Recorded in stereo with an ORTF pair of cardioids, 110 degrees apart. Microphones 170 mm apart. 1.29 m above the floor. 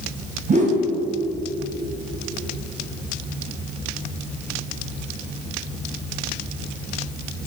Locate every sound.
0.5 s a whoosh: 50° right, 1.3 m